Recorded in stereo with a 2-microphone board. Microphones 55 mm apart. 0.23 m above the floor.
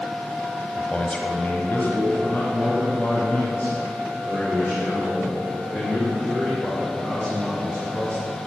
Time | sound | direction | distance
0.8 | a man speaking | 15° left (ahead or behind) | 1.1 m